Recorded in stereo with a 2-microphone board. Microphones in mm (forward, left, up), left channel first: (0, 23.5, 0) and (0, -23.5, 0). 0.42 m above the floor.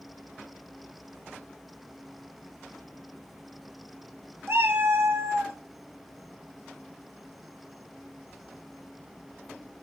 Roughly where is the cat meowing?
Right.